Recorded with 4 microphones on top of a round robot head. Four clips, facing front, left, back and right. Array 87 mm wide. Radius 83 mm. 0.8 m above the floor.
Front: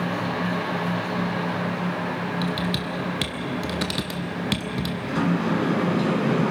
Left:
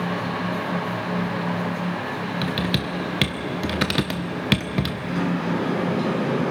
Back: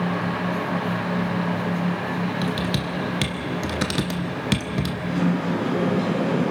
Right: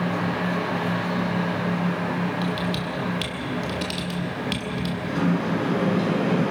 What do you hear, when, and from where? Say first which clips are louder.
2.4 s typing on a keyboard: left 1 dB, back 1 dB; 110° left, 0.9 m
5.1 s a sliding door: right 2 dB, front 1 dB; straight ahead, 7.5 m